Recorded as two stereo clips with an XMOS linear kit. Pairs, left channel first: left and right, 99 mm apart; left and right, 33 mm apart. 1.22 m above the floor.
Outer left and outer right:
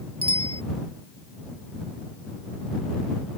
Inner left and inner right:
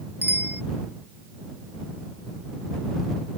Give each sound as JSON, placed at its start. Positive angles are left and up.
{"t": 0.2, "sound": "a bicycle bell", "side_deg": -70}